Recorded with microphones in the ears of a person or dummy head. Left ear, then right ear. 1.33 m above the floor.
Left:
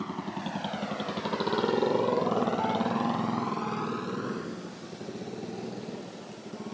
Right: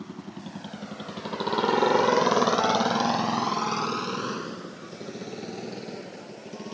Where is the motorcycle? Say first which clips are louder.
Left 6 dB; 35° left (ahead or behind); by 6.8 s 60° right (ahead or behind).